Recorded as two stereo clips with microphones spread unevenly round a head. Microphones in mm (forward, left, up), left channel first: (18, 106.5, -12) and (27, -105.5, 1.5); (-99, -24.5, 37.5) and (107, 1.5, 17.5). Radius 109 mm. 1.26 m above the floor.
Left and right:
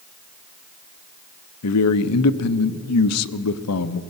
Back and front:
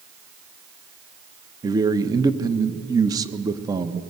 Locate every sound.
1.6 s a man speaking: 80° left, 0.8 m